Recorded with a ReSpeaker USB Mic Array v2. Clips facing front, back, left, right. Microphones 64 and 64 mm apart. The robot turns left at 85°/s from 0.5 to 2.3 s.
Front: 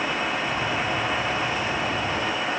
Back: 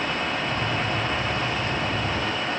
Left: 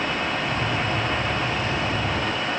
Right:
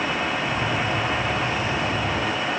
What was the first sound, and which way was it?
Only background noise.